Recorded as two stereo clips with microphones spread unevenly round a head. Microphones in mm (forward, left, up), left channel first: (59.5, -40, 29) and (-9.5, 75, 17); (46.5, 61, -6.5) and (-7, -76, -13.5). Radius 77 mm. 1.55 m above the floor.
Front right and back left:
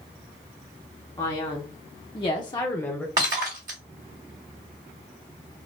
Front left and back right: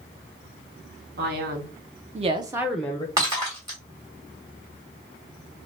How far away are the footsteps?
I don't hear footsteps.